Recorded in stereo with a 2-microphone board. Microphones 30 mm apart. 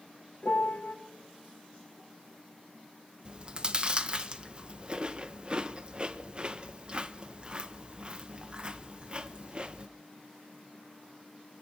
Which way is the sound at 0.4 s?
65° left (ahead or behind).